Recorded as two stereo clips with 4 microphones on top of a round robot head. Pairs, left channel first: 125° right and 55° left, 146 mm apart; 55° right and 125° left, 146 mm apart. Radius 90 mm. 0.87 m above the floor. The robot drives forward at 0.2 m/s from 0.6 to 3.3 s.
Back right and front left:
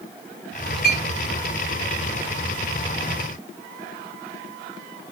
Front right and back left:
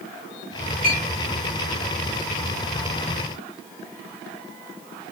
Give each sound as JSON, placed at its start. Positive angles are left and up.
{"t": 0.8, "sound": "a clink", "azimuth_deg": -90, "distance_m": 1.7}